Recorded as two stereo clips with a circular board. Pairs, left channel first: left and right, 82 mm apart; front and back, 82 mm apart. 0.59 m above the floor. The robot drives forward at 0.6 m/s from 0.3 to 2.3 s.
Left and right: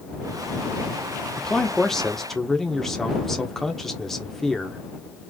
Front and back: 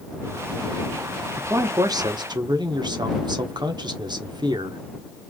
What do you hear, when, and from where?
1.4 s a man speaking: 170° left, 0.6 m; by 4.8 s 175° left, 1.0 m